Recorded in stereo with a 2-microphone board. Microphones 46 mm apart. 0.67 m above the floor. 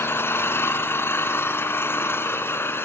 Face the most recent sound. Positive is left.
turn(degrees=65)  # may be behind; listen again after turning